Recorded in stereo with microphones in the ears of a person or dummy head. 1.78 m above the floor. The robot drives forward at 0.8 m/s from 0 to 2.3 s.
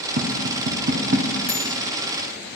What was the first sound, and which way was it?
Tapping, 55° right (ahead or behind).